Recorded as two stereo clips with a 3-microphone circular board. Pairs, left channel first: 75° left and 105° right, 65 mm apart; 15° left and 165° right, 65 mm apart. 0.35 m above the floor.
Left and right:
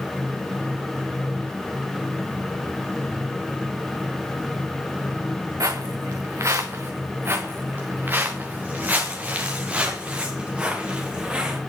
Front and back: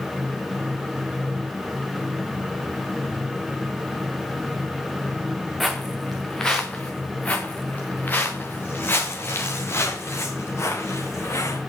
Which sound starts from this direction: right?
Footsteps, at 5.6 s.